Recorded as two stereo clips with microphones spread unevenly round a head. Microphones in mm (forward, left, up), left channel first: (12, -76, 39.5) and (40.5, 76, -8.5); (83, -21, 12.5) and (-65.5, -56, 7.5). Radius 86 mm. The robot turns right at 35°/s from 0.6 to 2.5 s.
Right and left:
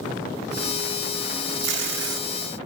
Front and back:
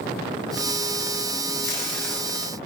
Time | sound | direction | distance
1.6 | tape being pulled | 85° left | 0.8 m